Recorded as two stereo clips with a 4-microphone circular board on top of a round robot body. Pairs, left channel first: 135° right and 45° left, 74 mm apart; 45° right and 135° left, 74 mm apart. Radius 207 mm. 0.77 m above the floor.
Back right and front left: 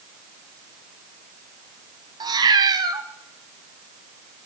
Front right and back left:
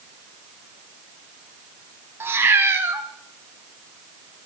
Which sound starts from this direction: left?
A cat meowing, at 2.2 s.